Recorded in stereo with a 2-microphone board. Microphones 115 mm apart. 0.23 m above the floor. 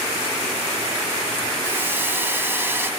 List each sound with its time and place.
1.6 s a hiss: 20° right (ahead or behind), 0.7 m